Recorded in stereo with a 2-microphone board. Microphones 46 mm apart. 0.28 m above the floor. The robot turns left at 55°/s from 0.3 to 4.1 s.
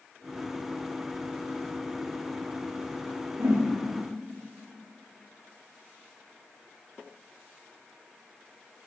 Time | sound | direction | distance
3.4 | a whoosh | 75° right (ahead or behind) | 4 m